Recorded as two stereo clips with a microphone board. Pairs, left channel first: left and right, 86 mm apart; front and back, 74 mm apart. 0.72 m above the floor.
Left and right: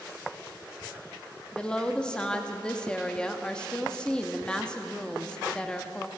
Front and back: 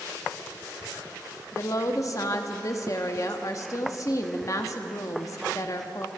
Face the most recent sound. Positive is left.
turn(degrees=15)